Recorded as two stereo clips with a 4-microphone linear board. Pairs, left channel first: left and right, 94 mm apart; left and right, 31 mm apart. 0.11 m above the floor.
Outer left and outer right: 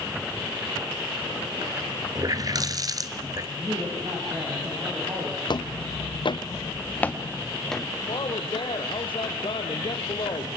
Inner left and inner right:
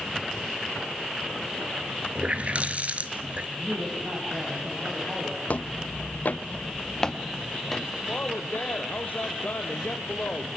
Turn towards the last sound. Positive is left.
turn(degrees=60)  # may be behind; listen again after turning